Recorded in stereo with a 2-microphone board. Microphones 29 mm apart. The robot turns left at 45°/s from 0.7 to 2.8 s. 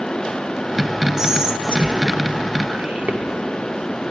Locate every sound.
1.2 s whispering: 15° right (ahead or behind), 0.8 m; by 3.2 s 45° right (ahead or behind), 0.8 m